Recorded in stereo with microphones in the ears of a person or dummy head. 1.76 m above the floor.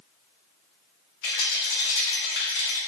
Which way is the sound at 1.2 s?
70° left (ahead or behind).